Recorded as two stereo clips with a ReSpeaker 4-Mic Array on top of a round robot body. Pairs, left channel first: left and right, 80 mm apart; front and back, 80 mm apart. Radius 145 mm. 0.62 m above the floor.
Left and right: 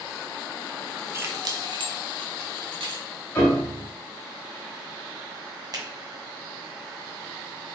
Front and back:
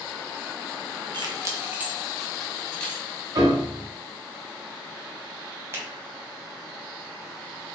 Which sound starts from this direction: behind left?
A piano, at 3.4 s.